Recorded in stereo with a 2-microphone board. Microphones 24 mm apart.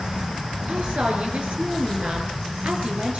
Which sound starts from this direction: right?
A woman speaking, at 0.7 s.